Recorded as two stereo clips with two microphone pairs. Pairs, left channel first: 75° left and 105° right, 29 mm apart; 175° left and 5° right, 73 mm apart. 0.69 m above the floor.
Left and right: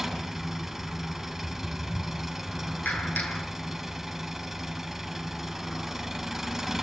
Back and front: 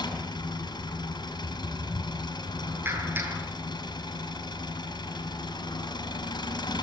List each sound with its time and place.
0.0 s an engine running: straight behind, 6 m
2.9 s a clap: 55° left, 8 m